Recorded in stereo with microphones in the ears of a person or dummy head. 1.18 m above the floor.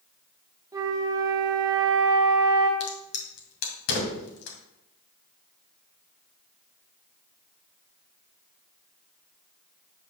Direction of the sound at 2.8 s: 60° left (ahead or behind).